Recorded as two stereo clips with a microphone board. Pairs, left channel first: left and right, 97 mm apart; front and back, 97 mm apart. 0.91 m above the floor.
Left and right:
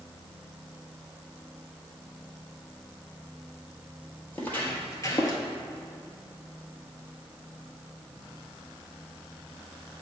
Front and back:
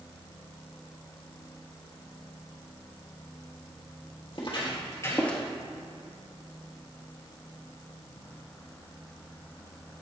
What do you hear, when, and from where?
4.3 s footsteps: 20° left, 1.6 m; by 5.4 s 85° left, 1.0 m